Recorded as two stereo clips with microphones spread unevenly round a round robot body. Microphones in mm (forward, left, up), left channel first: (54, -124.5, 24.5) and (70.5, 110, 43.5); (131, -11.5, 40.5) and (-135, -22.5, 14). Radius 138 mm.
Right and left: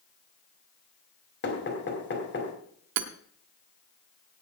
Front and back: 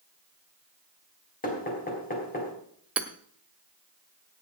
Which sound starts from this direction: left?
Hammering, at 3.0 s.